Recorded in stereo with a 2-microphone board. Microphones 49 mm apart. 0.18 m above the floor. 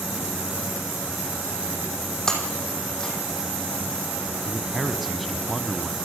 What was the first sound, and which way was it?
Breaking glass, 15° left (ahead or behind).